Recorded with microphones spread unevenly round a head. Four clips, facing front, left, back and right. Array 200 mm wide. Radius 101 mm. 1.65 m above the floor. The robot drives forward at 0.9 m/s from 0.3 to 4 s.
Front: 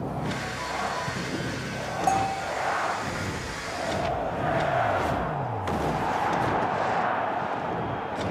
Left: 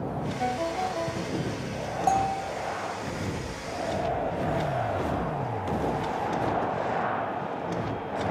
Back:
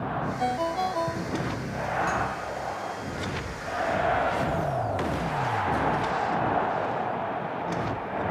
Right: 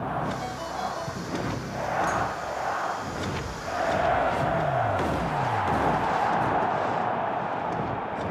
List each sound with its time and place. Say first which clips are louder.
0.4 s a ringtone: left 3 dB, back 5 dB; 135° left; by 1.7 s 145° left
2.1 s a bell: left 3 dB, front 4 dB; 65° left